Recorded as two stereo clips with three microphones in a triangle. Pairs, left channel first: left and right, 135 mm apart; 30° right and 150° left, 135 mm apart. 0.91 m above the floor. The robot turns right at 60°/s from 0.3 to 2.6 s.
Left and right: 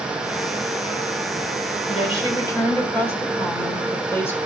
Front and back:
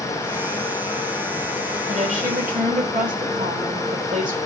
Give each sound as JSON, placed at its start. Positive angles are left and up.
{"t": 1.9, "sound": "a woman speaking", "azimuth_deg": 120, "distance_m": 3.0}